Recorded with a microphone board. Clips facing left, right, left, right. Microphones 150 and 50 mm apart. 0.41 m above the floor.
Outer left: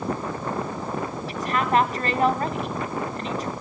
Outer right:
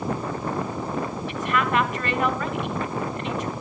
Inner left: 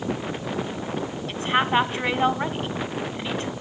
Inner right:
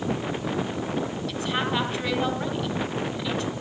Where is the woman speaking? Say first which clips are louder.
Outer left 2 dB, inner left 7 dB; 40° left (ahead or behind), 2.5 m.